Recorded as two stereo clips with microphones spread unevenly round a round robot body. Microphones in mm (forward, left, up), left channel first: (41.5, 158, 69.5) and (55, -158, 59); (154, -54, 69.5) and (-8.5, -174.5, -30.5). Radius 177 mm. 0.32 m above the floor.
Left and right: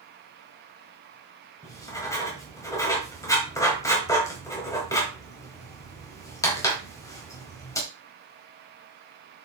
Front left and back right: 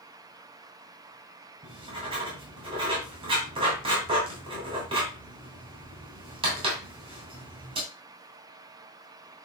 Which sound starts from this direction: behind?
Writing, at 1.6 s.